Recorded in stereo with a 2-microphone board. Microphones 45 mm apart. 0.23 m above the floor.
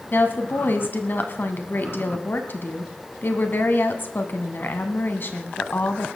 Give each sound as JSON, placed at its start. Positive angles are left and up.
{"t": 0.1, "sound": "a woman speaking", "side_deg": 50, "distance_m": 1.6}